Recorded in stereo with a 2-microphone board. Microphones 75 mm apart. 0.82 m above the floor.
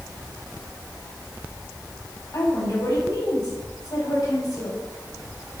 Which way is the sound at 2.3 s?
60° left (ahead or behind).